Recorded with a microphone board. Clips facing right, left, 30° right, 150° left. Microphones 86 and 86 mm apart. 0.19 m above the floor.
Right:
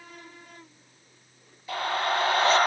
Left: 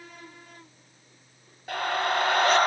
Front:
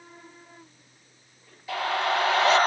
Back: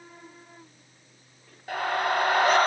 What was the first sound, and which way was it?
A scream, 120° left.